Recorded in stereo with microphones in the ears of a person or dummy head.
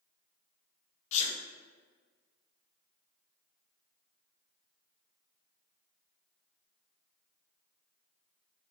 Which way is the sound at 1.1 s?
30° left (ahead or behind).